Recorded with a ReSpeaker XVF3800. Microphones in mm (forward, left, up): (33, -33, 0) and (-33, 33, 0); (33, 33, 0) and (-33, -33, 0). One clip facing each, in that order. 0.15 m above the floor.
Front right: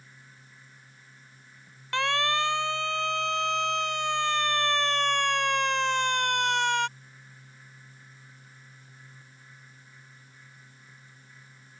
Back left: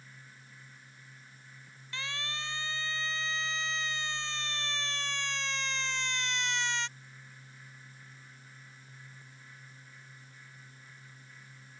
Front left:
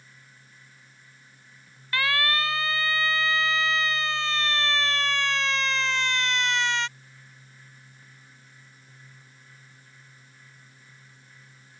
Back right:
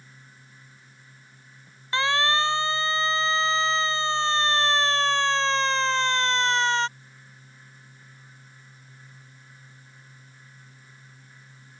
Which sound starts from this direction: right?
A siren, at 1.9 s.